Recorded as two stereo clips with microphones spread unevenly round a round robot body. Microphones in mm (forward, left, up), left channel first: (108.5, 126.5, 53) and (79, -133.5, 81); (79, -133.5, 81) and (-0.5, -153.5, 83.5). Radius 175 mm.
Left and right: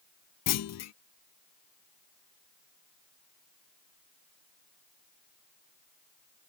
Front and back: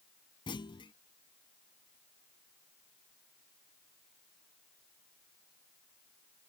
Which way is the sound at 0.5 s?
55° left.